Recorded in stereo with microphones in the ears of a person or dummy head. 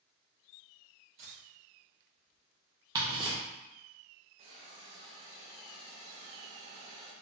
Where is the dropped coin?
40° right (ahead or behind), 1.4 m.